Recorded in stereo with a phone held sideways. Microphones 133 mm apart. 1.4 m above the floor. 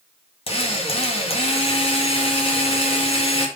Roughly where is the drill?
Left.